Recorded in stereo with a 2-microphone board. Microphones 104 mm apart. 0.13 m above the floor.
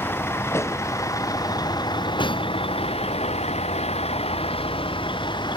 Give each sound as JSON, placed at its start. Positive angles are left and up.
{"t": 0.0, "sound": "a vehicle", "side_deg": 20}